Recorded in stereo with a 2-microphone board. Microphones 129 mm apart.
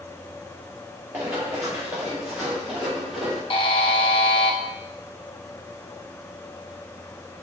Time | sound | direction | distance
1.1 | running footsteps | 15° right (ahead or behind) | 2 m
3.5 | a buzzer | 45° left (ahead or behind) | 0.6 m